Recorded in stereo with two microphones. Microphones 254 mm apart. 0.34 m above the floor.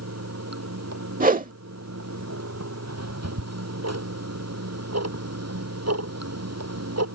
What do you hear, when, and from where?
0.0 s running water: 80° right
1.2 s a whoosh: 35° right (ahead or behind)
2.9 s ticking: 75° right (ahead or behind)